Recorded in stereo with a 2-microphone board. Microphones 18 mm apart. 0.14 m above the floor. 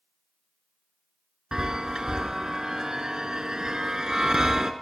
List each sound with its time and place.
1.5 s a chime: 45° right (ahead or behind), 0.8 m